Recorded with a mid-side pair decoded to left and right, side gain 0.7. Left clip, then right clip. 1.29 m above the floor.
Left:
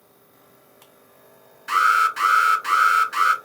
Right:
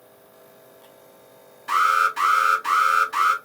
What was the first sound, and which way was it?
An alarm, 30° left.